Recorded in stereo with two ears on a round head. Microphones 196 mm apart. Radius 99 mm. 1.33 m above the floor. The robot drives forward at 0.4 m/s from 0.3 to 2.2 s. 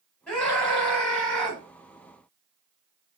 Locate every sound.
0.3 s a scream: 5° left (ahead or behind), 5.5 m